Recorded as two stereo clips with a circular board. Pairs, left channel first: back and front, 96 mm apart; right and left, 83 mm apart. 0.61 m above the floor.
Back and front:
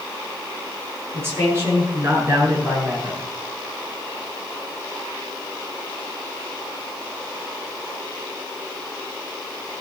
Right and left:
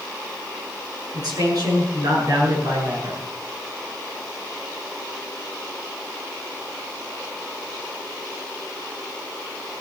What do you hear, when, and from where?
1.1 s a man speaking: 60° left, 7.5 m; by 3.2 s 50° left, 7.5 m